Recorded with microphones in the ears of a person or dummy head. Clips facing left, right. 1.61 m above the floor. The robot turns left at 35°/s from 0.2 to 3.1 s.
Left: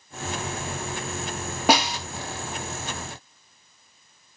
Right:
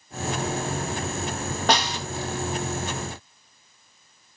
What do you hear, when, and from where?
1.7 s a snare drum: 10° left (ahead or behind), 1.0 m; by 2.0 s 15° left (ahead or behind), 1.0 m